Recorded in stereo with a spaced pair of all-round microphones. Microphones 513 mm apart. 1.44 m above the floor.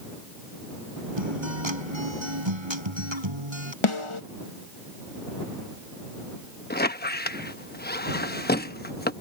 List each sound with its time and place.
1.2 s a guitar: 60° right (ahead or behind)
3.8 s a snare drum: 70° left (ahead or behind)
6.7 s a squeak: 20° left (ahead or behind)